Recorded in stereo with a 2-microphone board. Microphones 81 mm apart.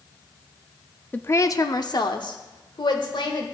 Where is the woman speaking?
20° left (ahead or behind), 0.5 m; by 3.5 s 75° left (ahead or behind), 2 m.